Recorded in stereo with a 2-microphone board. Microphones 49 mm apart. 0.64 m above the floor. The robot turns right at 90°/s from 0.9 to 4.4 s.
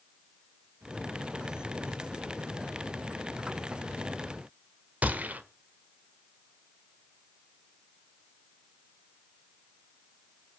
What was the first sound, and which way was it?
A gunshot, 35° right (ahead or behind).